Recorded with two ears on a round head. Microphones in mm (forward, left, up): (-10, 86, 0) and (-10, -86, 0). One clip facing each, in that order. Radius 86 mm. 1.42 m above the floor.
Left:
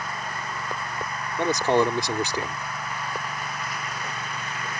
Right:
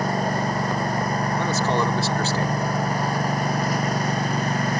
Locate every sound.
0.0 s a lawn mower: 35° right (ahead or behind)
1.4 s a man speaking: 15° left (ahead or behind)